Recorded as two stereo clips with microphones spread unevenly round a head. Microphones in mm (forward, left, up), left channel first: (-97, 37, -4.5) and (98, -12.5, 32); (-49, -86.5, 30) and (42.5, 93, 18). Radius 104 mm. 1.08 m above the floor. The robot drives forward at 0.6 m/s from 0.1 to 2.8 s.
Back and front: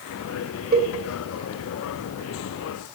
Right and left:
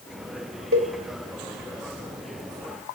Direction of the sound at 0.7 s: 30° left.